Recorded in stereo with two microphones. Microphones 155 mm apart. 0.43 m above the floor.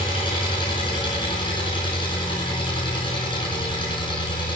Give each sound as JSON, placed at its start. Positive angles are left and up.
{"t": 0.0, "sound": "an engine running", "side_deg": 35, "distance_m": 3.5}